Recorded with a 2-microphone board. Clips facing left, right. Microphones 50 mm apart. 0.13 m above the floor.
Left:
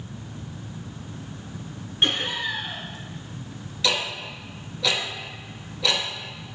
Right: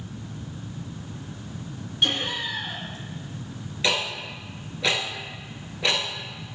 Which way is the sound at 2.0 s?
30° left (ahead or behind).